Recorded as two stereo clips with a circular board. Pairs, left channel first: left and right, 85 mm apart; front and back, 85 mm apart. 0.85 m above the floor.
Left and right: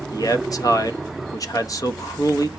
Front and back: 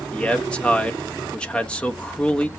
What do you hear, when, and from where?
0.1 s a man speaking: 75° left, 1.1 m